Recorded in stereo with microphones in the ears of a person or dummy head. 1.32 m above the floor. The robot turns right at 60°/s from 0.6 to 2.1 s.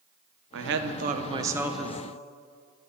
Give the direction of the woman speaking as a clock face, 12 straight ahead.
2 o'clock.